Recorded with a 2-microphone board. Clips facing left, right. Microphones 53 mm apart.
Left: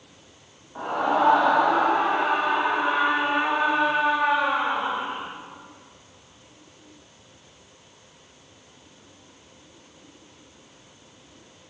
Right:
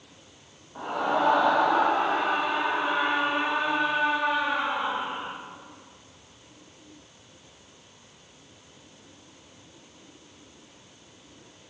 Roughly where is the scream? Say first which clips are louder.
Left 3 dB; centre.